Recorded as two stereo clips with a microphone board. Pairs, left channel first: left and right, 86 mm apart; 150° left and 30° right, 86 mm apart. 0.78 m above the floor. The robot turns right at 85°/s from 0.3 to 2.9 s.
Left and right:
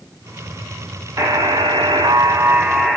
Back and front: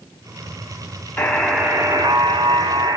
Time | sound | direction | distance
1.2 | a buzzer | 145° right | 0.8 m